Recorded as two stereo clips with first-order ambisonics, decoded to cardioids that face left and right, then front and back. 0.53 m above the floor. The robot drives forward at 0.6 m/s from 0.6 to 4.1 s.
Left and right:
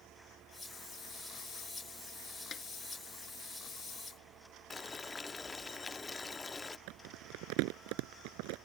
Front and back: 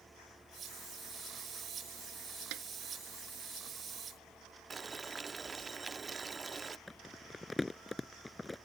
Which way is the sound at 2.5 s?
155° left.